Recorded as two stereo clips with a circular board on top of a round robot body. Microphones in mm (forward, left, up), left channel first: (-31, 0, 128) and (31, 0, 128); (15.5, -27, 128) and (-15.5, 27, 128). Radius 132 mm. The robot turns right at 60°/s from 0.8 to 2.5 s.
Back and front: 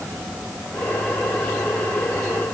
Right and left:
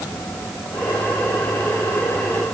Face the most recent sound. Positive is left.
No sound to turn to.